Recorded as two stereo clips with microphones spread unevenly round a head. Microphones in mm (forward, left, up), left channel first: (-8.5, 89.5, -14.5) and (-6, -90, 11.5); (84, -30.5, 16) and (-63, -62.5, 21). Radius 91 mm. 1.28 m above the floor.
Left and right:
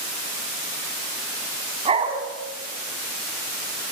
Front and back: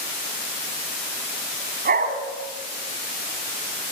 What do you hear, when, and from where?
1.9 s a dog barking: 145° right, 3.5 m